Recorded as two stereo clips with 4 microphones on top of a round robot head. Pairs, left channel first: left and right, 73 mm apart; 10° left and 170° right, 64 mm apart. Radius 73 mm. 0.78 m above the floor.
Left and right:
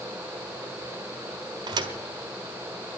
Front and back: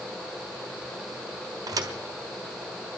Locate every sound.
1.7 s a thud: 125° right, 1.4 m